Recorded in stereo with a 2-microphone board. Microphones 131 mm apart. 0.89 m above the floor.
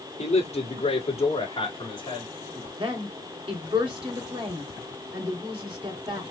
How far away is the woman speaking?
About 3 m.